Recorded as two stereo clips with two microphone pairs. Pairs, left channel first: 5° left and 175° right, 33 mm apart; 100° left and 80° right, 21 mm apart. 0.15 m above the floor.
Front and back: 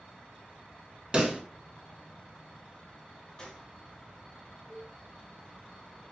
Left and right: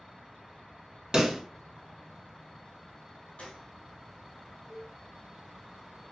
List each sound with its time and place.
1.1 s a pop: 125° right, 0.6 m
3.4 s a gunshot: 75° left, 0.8 m
4.7 s a cowbell: 75° left, 1.2 m